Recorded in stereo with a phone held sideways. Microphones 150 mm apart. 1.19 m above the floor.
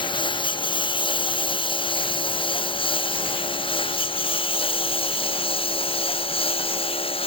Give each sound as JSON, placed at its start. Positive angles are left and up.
{"t": 0.0, "sound": "a lawn mower", "side_deg": 35}